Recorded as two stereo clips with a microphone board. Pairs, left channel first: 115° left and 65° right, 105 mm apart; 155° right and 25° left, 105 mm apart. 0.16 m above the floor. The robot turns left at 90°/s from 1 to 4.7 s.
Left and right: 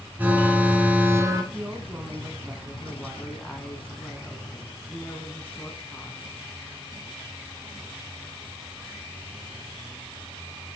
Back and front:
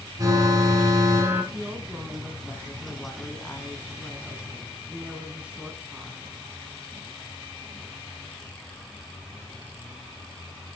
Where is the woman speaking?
10° left, 1.0 m; by 6.2 s 85° left, 1.0 m.